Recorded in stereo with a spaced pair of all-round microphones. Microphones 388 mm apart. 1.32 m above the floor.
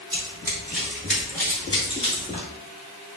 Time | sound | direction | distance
0.1 | running footsteps | 10° right (ahead or behind) | 1.4 m